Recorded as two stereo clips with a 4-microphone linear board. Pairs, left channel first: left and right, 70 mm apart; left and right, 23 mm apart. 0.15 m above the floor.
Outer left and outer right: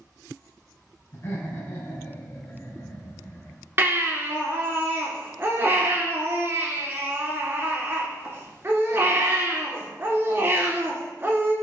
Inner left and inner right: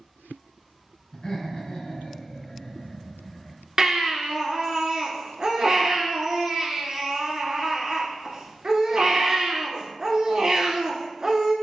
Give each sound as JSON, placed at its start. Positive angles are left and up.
{"t": 1.1, "sound": "laughter", "side_deg": 40, "distance_m": 1.6}
{"t": 3.8, "sound": "a baby crying", "side_deg": -35, "distance_m": 0.9}